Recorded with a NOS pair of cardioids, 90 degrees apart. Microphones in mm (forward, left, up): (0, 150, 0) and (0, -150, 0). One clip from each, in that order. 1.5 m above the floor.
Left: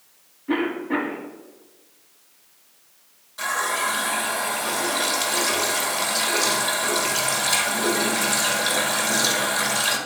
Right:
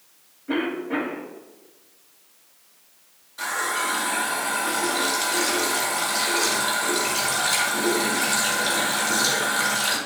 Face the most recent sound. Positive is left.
turn(degrees=10)